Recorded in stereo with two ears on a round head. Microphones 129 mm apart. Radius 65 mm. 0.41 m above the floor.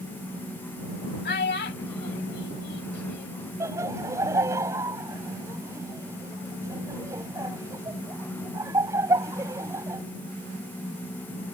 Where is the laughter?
20° right (ahead or behind).